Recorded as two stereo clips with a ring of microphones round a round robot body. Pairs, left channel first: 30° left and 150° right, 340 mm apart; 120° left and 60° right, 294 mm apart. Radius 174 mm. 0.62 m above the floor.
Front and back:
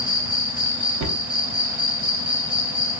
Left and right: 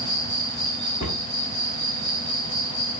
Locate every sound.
0.0 s an insect: 165° right, 1.7 m
1.0 s a cupboard door: straight behind, 0.9 m